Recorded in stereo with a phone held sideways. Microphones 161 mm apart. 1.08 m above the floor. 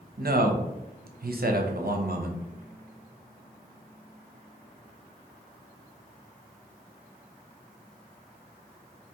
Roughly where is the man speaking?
Right.